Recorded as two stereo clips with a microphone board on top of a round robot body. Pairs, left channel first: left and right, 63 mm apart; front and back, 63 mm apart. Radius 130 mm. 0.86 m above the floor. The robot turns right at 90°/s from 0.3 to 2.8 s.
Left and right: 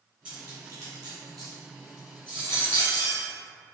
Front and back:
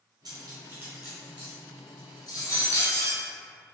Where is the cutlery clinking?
160° right, 1.6 m; by 3.2 s 65° left, 1.6 m.